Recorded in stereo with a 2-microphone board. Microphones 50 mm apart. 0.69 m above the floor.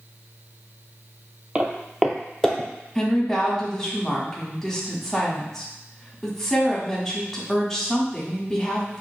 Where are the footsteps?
25° right (ahead or behind), 0.7 m; by 2.7 s 15° left (ahead or behind), 1.0 m.